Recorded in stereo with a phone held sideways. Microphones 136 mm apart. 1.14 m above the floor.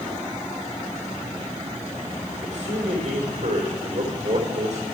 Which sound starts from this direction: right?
A man speaking, at 2.4 s.